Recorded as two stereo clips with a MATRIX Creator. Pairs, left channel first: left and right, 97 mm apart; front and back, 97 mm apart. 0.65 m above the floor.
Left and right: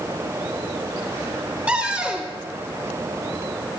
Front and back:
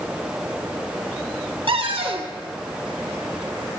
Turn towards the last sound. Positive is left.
turn(degrees=-165)